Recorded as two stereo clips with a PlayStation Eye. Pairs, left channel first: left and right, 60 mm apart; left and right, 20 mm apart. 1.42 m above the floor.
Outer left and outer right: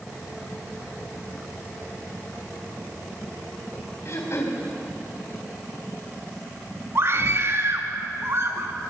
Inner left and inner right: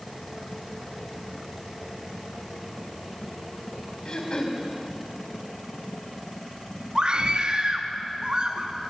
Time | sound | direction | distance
4.0 | throat clearing | 50° left (ahead or behind) | 4 m
7.0 | a scream | 45° right (ahead or behind) | 3 m